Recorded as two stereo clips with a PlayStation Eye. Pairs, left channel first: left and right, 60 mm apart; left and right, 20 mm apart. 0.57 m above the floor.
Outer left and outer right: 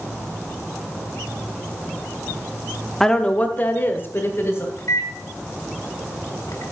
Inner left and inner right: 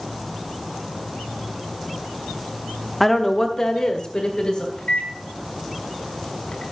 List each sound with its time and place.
3.0 s a woman speaking: 5° left (ahead or behind), 0.8 m; by 4.7 s 40° left (ahead or behind), 2.5 m
4.8 s a microwave: 65° left (ahead or behind), 1.6 m